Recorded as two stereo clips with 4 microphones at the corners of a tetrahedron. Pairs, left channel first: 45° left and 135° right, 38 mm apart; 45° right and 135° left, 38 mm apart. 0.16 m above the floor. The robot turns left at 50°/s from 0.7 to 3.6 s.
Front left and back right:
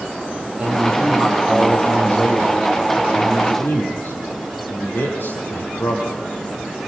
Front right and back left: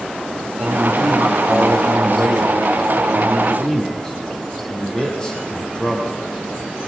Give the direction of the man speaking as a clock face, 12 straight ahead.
6 o'clock.